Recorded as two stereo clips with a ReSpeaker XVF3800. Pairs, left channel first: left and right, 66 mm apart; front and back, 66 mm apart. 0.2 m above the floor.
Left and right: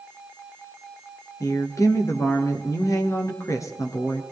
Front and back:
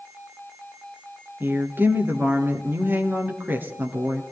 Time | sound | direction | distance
1.4 | a woman speaking | 120° left | 3 m